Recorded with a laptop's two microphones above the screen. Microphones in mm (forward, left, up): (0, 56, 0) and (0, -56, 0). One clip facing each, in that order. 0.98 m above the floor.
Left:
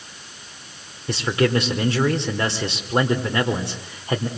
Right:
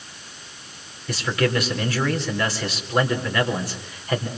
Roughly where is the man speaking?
Left.